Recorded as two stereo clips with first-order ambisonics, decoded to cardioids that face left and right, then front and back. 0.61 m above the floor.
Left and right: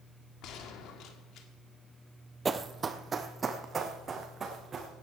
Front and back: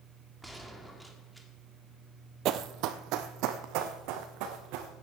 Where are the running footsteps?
160° right, 0.8 m.